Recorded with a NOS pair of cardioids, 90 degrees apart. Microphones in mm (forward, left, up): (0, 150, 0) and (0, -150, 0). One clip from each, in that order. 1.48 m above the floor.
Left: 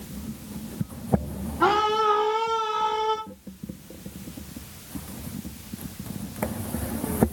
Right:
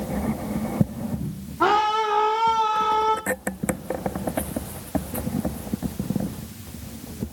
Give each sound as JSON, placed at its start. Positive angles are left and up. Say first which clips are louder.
{"t": 1.6, "sound": "a scream", "louder": "right 1 dB", "azimuth_deg": -20, "distance_m": 3.0}